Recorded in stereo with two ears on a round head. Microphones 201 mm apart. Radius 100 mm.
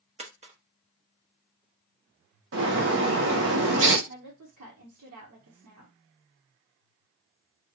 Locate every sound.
0.2 s a dropped coin: 30° right (ahead or behind), 1.1 m
2.5 s a bird: 65° right (ahead or behind), 1.0 m
4.1 s a woman speaking: 85° right, 1.1 m